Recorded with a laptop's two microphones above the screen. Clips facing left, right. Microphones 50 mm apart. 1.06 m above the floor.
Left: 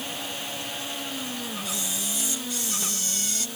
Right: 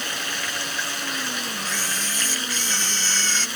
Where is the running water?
70° right (ahead or behind).